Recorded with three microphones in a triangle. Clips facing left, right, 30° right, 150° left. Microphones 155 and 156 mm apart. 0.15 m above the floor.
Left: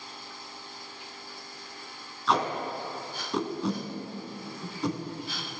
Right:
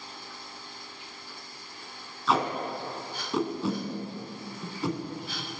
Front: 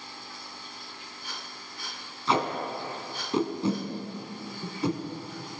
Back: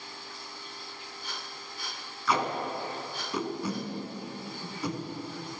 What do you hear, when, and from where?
2.3 s tape being pulled: 5° right, 1.1 m